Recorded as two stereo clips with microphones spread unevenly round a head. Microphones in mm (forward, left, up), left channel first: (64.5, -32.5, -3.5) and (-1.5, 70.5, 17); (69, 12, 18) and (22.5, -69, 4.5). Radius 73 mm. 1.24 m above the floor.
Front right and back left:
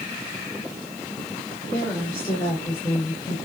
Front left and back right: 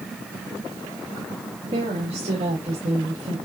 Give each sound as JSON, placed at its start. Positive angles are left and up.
{"t": 1.7, "sound": "a woman speaking", "azimuth_deg": -135, "distance_m": 4.0}